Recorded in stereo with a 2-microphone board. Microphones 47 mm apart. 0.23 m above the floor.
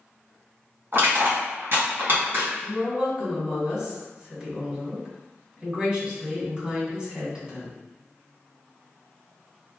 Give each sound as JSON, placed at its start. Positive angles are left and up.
{"t": 0.9, "sound": "crushing", "side_deg": -55, "distance_m": 1.9}
{"t": 2.6, "sound": "a woman speaking", "side_deg": -20, "distance_m": 1.9}